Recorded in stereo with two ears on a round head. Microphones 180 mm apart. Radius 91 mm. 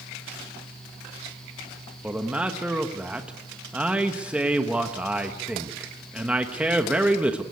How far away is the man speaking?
About 1.1 m.